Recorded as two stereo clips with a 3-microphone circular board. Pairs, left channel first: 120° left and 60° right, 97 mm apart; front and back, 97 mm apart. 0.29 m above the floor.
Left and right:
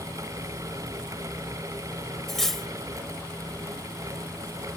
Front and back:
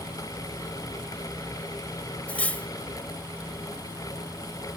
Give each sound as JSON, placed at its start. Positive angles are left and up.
{"t": 2.3, "sound": "cutlery clinking", "azimuth_deg": 40, "distance_m": 0.7}